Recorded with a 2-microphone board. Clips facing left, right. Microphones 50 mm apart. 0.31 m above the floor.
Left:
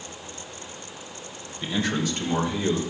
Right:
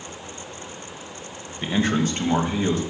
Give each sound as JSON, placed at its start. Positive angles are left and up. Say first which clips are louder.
{"t": 1.6, "sound": "a man speaking", "louder": "right 4 dB", "side_deg": -30, "distance_m": 1.3}